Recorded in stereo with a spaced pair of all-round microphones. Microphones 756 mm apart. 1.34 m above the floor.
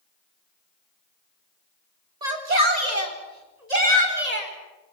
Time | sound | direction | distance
2.2 | a shout | 65° right (ahead or behind) | 4 m